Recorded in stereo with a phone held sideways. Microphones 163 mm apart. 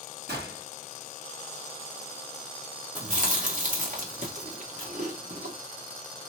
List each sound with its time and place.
0.3 s a gunshot: 80° right, 1.1 m
3.0 s chewing: 50° right (ahead or behind), 1.0 m